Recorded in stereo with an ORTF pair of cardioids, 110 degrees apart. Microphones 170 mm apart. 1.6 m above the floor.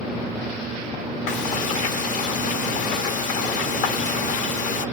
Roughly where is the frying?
Ahead left.